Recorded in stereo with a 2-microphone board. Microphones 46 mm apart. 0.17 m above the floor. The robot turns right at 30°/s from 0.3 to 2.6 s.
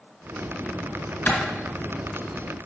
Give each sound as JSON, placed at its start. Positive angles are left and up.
{"t": 1.3, "sound": "a clap", "side_deg": 40, "distance_m": 1.9}